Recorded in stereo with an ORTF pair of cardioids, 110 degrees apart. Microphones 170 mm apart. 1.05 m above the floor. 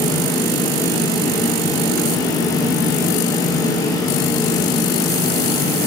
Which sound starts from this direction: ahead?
A fan, at 0.0 s.